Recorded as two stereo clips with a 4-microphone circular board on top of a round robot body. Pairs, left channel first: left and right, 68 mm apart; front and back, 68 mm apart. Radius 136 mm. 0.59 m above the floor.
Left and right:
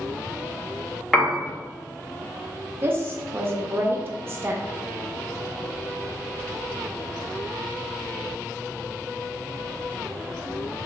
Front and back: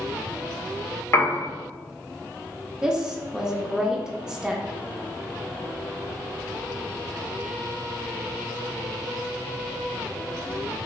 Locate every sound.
1.1 s a piano: 10° left, 1.0 m
2.8 s a woman speaking: 105° right, 0.6 m